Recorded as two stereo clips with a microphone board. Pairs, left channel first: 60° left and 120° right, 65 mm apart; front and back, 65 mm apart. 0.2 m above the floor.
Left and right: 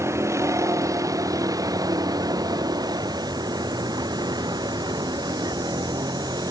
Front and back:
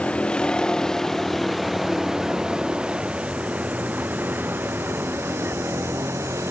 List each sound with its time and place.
0.0 s a vehicle: 75° right; by 6.5 s 130° right